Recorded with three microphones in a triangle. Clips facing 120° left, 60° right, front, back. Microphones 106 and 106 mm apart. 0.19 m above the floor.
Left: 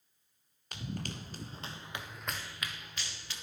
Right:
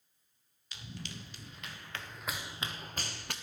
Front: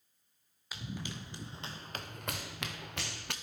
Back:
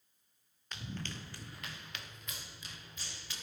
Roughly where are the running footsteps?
Left.